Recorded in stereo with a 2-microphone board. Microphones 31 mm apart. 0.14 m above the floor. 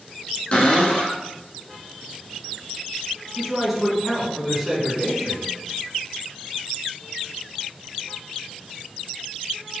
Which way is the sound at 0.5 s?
40° left (ahead or behind).